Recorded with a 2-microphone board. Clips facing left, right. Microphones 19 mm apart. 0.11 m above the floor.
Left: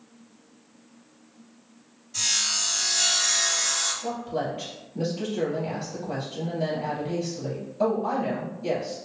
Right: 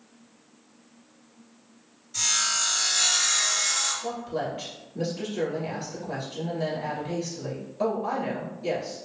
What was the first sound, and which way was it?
Sawing, 5° right (ahead or behind).